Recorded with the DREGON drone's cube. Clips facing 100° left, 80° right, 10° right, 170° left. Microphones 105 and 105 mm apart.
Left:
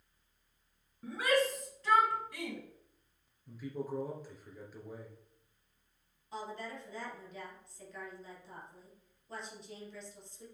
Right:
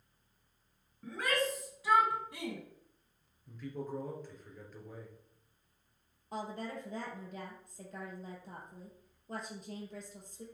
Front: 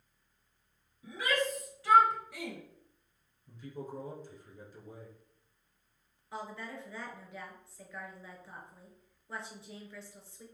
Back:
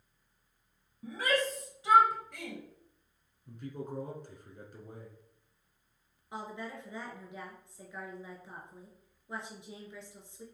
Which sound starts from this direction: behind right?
A woman speaking, at 6.3 s.